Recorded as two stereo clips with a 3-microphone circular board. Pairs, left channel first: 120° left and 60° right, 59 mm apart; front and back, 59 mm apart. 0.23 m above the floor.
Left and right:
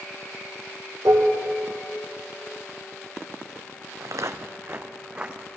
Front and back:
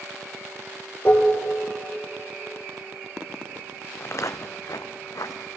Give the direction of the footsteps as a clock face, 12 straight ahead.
2 o'clock.